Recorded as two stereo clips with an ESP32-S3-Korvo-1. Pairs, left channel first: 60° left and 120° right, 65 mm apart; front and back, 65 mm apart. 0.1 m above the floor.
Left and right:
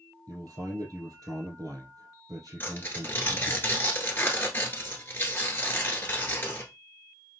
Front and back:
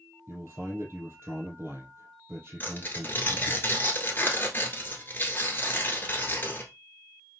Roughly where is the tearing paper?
Ahead left.